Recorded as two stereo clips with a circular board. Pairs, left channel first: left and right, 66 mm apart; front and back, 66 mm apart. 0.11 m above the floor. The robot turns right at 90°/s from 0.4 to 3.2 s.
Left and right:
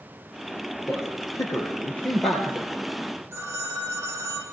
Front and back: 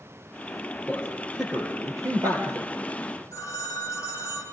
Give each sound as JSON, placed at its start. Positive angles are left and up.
{"t": 0.9, "sound": "a man speaking", "azimuth_deg": 55, "distance_m": 3.5}
{"t": 3.3, "sound": "a phone ringing", "azimuth_deg": -40, "distance_m": 4.0}